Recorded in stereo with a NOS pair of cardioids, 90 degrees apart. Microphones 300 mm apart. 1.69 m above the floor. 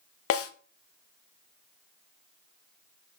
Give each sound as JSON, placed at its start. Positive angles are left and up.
{"t": 0.3, "sound": "a snare drum", "azimuth_deg": 50, "distance_m": 0.9}